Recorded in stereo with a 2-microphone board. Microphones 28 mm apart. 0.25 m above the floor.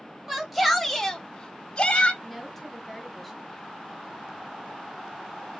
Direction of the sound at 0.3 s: 10° right (ahead or behind).